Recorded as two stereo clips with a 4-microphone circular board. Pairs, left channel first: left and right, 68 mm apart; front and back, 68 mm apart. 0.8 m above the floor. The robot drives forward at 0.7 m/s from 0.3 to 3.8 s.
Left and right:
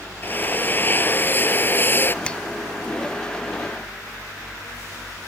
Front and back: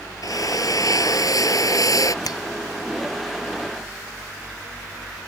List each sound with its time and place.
0.2 s a drill: 30° left
2.2 s a finger snap: 15° left